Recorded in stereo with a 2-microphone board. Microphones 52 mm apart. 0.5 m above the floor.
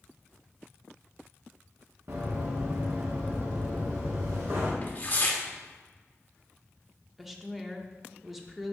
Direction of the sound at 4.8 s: 35° left (ahead or behind).